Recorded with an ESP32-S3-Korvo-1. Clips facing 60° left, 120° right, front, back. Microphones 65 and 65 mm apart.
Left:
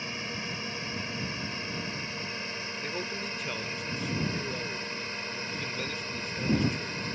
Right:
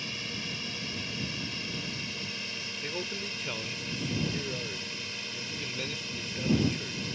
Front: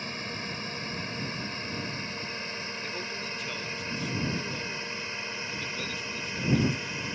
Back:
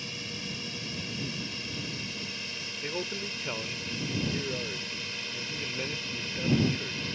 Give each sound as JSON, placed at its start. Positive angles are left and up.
{"t": 0.0, "sound": "a drone", "azimuth_deg": 15}
{"t": 2.8, "sound": "a man speaking", "azimuth_deg": 145}